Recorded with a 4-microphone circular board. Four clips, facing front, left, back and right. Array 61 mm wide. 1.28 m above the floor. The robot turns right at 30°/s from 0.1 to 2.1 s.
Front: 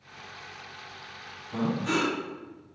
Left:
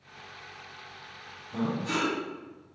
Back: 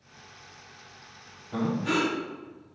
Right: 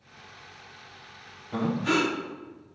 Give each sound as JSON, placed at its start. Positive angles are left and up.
{"t": 1.5, "sound": "breathing", "azimuth_deg": -110, "distance_m": 2.5}